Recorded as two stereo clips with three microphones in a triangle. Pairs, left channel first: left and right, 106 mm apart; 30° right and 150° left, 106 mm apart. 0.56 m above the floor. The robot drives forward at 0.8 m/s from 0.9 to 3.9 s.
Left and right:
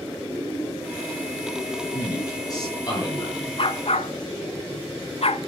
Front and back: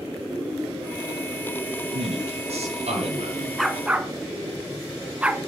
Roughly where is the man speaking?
Behind left.